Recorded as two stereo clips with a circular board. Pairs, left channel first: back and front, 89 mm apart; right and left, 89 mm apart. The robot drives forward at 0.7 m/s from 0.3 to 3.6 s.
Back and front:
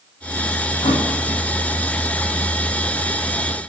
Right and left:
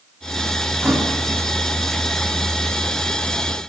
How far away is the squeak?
I don't hear a squeak.